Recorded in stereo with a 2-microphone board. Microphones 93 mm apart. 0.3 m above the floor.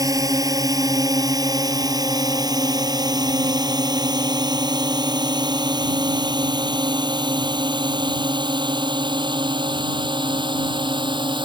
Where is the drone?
40° right (ahead or behind); by 11.5 s 60° right (ahead or behind).